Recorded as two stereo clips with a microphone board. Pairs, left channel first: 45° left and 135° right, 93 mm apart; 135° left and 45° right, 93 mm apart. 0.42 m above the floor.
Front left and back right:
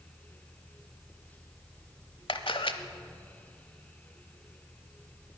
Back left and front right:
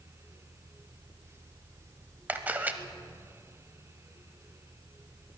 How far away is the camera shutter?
About 0.8 m.